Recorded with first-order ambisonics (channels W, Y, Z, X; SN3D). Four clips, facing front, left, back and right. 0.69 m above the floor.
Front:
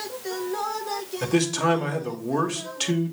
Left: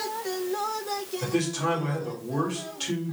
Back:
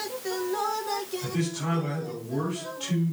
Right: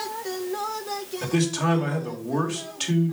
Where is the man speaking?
20° right, 2.5 m.